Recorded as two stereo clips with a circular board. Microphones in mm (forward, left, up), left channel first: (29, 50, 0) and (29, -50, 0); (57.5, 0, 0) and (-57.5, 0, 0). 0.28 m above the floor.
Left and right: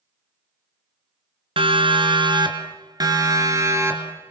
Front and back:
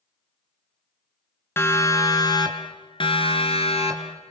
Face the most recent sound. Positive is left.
turn(degrees=-25)